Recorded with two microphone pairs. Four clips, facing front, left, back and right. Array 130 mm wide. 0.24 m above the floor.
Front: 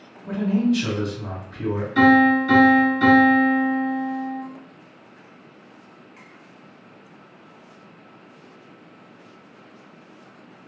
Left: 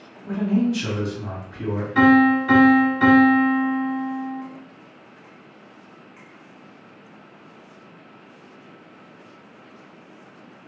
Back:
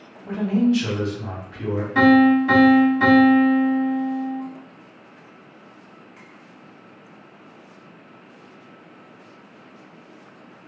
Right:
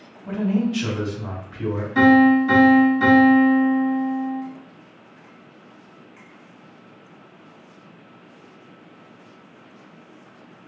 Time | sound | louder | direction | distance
0.2 | a man speaking | left 1 dB, back 1 dB | 125° right | 1.8 m
1.9 | a piano | right 1 dB, back 1 dB | 170° left | 1.6 m